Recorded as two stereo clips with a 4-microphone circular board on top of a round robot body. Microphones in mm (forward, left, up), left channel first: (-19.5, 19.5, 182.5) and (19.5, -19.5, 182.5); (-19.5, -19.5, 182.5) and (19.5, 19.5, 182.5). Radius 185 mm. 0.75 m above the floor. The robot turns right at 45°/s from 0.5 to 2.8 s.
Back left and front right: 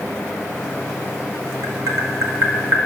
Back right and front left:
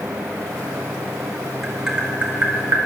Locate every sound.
1.6 s tapping: 45° right, 2.5 m; by 2.9 s 10° left, 2.5 m